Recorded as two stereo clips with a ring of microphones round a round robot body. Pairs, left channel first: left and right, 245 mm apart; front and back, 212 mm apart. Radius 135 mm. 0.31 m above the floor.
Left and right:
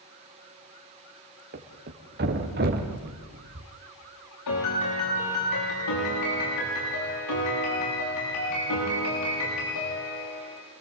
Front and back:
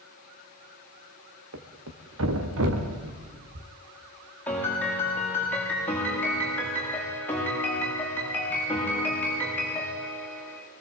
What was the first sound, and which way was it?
A thud, 140° right.